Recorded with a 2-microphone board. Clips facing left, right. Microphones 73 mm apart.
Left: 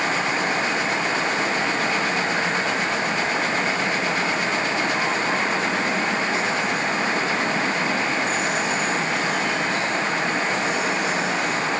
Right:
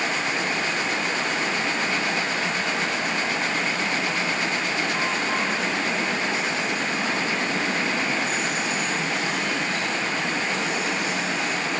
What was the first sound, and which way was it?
Only background noise.